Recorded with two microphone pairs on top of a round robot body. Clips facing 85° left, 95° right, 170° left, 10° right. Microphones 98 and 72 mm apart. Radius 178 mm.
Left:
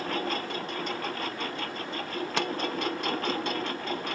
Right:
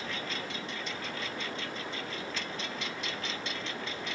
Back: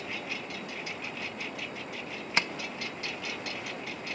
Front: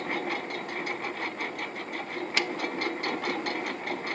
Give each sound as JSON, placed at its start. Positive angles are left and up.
{"t": 0.0, "sound": "a lawn mower", "azimuth_deg": 40}
{"t": 2.4, "sound": "tapping", "azimuth_deg": 110}